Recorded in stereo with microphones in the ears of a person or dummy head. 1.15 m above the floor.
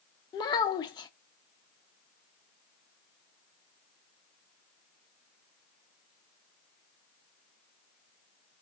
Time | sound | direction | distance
0.3 | a child speaking | 20° left (ahead or behind) | 0.6 m